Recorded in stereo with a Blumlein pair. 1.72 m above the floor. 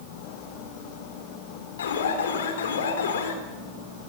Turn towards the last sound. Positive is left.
turn(degrees=60)